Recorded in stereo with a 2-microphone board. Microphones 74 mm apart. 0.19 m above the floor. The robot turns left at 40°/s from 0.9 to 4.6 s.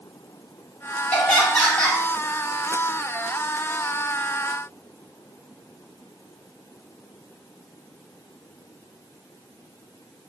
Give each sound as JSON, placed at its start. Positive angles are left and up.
{"t": 1.1, "sound": "laughter", "side_deg": 10, "distance_m": 1.0}